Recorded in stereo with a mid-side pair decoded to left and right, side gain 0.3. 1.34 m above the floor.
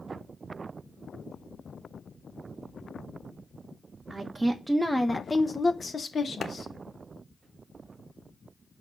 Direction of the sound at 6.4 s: 70° left.